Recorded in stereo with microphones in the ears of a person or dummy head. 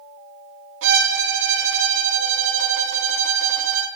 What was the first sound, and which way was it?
A violin, 80° right.